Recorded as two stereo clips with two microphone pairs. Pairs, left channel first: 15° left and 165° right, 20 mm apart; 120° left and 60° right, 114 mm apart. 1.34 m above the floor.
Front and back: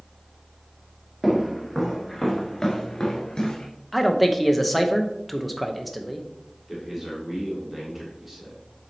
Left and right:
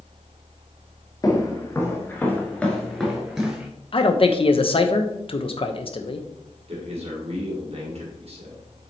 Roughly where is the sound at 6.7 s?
Right.